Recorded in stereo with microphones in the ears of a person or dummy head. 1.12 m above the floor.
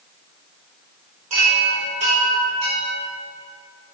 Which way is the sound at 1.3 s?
30° right (ahead or behind).